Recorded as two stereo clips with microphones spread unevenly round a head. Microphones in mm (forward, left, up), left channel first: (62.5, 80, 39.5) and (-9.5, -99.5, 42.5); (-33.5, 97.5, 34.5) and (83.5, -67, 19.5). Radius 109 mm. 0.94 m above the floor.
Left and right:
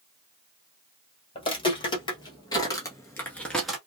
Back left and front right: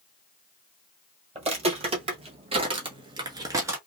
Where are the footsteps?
5° left, 1.8 m; by 3.8 s 50° right, 0.8 m.